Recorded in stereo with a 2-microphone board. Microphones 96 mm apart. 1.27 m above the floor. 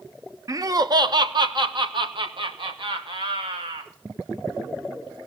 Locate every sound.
0.5 s laughter: 35° right (ahead or behind), 0.8 m; by 3.9 s 65° right (ahead or behind), 3 m